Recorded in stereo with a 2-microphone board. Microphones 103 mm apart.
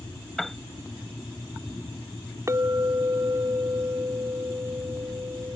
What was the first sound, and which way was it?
A piano, 5° left (ahead or behind).